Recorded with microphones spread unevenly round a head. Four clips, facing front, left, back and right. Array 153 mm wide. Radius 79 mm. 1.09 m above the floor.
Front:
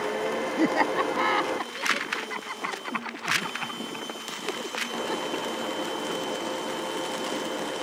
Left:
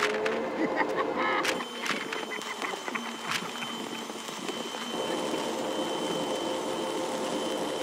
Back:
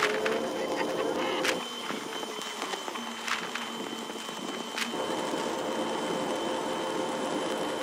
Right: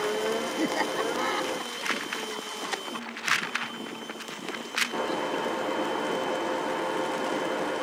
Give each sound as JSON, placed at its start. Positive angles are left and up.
{"t": 0.6, "sound": "laughter", "azimuth_deg": -5}